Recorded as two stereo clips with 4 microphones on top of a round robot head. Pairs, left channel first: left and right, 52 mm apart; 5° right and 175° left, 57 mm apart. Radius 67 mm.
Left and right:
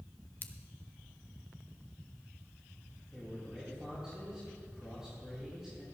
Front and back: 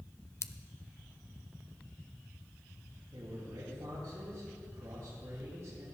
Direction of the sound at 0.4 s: 35° left.